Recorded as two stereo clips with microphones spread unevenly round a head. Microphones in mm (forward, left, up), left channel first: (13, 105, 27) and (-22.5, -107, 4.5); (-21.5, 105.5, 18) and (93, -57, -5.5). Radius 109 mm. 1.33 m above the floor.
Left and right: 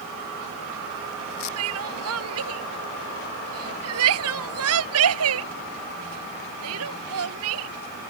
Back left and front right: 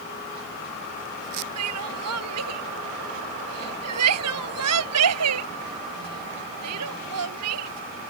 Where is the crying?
75° right.